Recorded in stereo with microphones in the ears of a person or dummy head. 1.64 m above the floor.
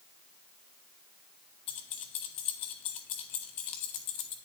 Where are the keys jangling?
25° left (ahead or behind), 0.5 m.